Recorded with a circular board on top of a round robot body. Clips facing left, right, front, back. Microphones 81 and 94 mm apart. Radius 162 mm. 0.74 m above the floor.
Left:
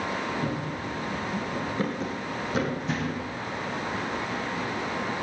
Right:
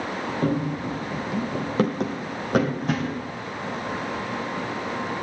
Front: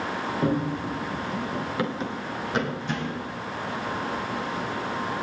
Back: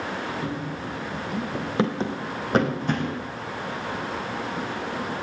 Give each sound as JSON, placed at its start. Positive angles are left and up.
{"t": 0.4, "sound": "running footsteps", "azimuth_deg": -50, "distance_m": 1.2}